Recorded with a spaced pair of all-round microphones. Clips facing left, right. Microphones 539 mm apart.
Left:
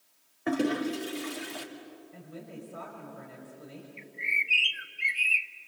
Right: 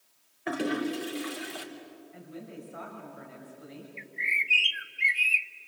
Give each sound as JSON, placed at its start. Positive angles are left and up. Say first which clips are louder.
{"t": 0.5, "sound": "a toilet flushing", "louder": "left 2 dB", "side_deg": 65, "distance_m": 2.5}
{"t": 2.1, "sound": "a woman speaking", "louder": "right 2 dB", "side_deg": 55, "distance_m": 5.5}
{"t": 4.0, "sound": "a bird", "louder": "even", "side_deg": -45, "distance_m": 0.7}